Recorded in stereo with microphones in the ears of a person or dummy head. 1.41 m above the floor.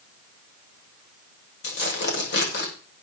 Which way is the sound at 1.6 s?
60° left (ahead or behind).